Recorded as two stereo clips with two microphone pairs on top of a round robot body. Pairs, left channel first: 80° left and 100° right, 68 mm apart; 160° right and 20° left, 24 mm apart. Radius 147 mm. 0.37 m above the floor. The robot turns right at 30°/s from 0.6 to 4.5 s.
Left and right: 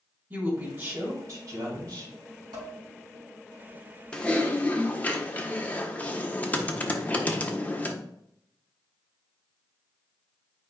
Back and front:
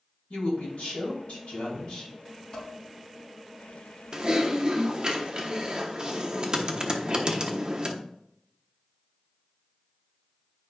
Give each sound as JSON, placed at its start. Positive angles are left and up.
{"t": 0.3, "sound": "a woman speaking", "azimuth_deg": -155, "distance_m": 3.5}
{"t": 2.5, "sound": "dishes clattering", "azimuth_deg": -105, "distance_m": 3.0}
{"t": 4.1, "sound": "typing on a keyboard", "azimuth_deg": 0, "distance_m": 1.3}